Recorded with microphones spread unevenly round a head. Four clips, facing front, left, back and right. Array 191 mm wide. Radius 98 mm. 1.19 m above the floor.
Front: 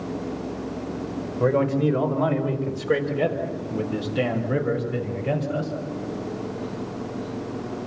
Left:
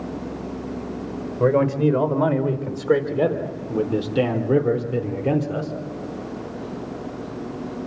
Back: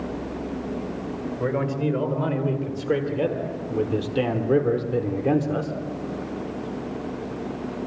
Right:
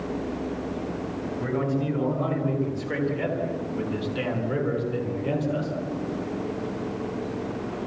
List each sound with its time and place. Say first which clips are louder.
1.4 s a man speaking: left 10 dB, front 5 dB; 85° left, 4.5 m; by 5.8 s 145° left, 3 m